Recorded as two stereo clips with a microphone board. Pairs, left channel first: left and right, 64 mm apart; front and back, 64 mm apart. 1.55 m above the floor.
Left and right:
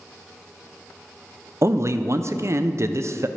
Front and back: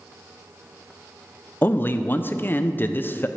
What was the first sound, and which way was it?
A man speaking, 55° right.